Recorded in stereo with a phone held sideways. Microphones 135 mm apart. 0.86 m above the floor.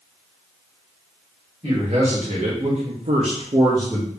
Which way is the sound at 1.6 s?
50° right (ahead or behind).